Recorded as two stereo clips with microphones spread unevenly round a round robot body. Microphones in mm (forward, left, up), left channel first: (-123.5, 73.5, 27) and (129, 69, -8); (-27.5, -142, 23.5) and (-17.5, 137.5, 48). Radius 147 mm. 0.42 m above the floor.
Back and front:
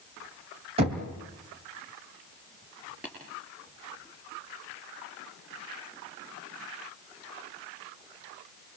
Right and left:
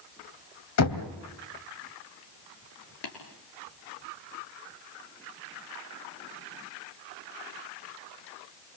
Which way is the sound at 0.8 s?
65° right.